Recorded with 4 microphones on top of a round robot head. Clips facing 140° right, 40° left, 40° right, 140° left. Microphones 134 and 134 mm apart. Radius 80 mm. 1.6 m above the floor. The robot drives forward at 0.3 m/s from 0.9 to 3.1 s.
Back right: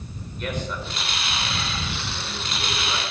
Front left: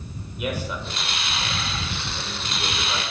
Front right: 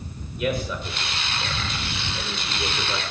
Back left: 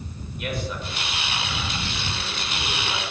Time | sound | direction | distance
0.4 | a man speaking | 40° right | 7.5 m